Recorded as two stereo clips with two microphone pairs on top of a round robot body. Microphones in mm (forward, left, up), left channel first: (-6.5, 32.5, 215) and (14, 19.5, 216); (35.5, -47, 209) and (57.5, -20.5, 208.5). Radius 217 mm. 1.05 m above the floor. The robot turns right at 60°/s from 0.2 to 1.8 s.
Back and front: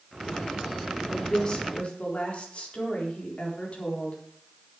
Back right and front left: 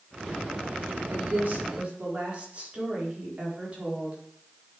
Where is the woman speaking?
65° left, 4 m; by 4.2 s 105° left, 4 m.